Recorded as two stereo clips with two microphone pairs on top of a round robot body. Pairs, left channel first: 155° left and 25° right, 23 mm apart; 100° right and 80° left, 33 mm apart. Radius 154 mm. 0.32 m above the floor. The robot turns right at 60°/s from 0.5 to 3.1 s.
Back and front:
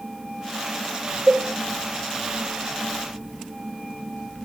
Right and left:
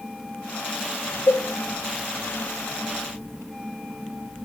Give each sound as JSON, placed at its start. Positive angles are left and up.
{"t": 1.3, "sound": "a cowbell", "azimuth_deg": -80, "distance_m": 4.0}